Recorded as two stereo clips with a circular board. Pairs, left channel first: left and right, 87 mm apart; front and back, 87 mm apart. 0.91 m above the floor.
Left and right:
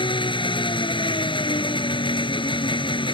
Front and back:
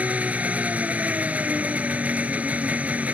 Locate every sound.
0.0 s an engine running: 105° left